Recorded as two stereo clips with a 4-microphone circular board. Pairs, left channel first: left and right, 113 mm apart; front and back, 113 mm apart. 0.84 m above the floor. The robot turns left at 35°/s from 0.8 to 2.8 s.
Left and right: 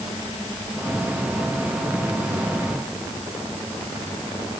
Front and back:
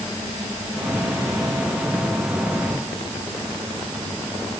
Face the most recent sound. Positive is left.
No sound to turn to.